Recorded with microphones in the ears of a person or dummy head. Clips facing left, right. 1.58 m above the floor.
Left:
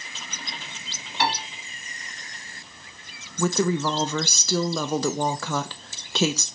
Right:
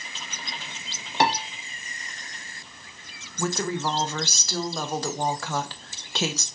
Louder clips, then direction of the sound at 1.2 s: Right 3 dB; 40° right (ahead or behind).